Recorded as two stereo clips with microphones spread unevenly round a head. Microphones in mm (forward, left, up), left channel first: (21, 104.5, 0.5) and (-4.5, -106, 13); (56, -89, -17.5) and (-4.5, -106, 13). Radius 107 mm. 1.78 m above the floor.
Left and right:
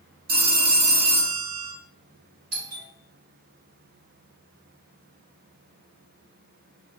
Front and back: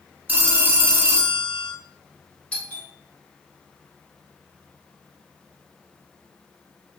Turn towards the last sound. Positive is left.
turn(degrees=-55)